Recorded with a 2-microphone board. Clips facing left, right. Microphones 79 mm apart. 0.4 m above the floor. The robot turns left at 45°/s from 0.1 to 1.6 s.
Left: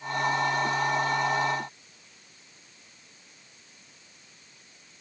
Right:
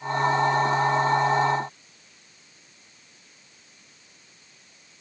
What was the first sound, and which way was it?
Only background noise.